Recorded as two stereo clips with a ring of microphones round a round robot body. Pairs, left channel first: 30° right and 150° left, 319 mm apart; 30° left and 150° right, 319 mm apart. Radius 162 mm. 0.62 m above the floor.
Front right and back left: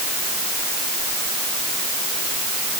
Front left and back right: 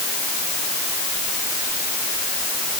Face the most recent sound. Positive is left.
No sound to turn to.